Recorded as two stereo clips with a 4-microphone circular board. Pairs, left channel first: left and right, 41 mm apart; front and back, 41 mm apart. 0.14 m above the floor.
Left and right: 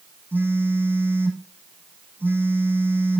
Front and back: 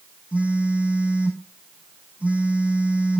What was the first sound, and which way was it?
A phone buzzing, 125° right.